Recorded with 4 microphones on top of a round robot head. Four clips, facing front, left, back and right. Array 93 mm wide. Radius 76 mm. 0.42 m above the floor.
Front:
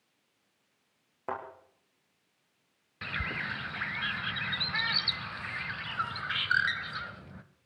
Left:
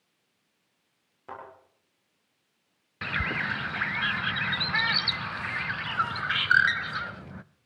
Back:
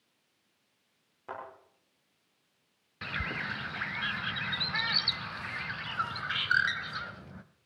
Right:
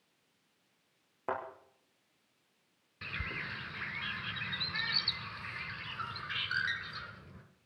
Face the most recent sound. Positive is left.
turn(degrees=95)